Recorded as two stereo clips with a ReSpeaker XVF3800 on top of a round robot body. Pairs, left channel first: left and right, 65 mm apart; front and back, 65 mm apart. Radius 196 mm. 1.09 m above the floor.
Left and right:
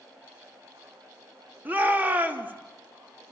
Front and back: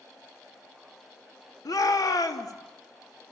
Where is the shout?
25° right, 3 m.